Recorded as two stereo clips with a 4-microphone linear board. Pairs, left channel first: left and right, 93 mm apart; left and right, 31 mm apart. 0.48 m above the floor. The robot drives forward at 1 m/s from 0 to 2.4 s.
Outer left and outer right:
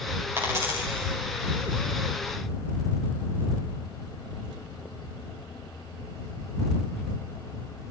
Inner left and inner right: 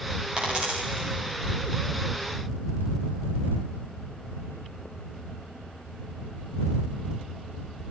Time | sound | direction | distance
0.4 | a dropped coin | 25° right (ahead or behind) | 8.5 m